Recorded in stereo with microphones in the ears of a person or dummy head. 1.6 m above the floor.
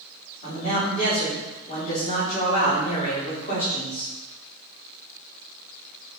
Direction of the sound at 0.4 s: 30° left (ahead or behind).